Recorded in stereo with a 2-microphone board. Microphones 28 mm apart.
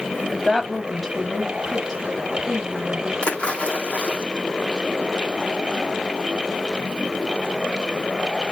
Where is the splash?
40° left (ahead or behind), 2.5 m.